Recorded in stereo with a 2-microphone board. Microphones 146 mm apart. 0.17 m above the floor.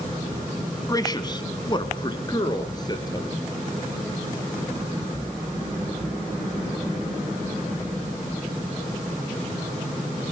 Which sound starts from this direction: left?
A man speaking, at 0.9 s.